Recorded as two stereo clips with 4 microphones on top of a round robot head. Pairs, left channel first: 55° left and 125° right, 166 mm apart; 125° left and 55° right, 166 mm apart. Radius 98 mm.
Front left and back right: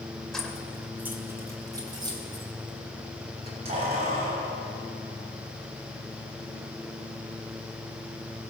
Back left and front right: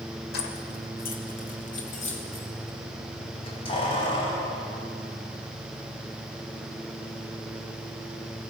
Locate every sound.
0.3 s keys jangling: 145° left, 2 m; by 8.5 s 165° right, 8.5 m